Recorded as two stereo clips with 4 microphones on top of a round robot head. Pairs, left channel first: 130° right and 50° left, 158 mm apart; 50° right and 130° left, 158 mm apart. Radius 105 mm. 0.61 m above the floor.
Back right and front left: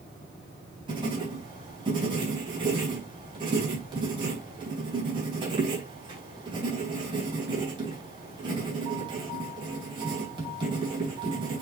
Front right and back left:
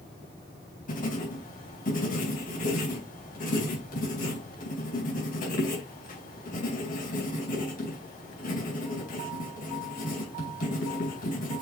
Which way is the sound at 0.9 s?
10° right.